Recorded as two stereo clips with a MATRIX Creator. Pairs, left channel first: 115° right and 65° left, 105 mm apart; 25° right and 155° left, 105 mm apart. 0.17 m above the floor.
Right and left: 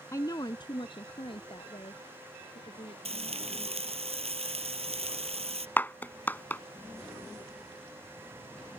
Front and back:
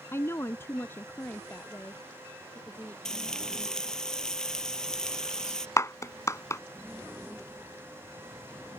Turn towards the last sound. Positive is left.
turn(degrees=-55)